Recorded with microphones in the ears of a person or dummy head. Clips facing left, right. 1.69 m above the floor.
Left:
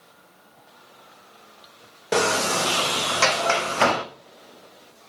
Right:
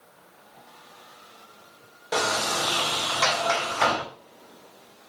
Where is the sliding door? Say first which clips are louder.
Left 5 dB; 45° left (ahead or behind), 0.7 m.